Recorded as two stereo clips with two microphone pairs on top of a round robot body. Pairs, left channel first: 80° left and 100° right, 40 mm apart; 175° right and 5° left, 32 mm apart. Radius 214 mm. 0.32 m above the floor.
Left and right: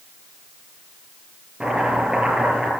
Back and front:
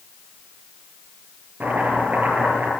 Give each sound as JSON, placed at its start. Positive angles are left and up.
{"t": 1.6, "sound": "chopping", "azimuth_deg": -30, "distance_m": 8.0}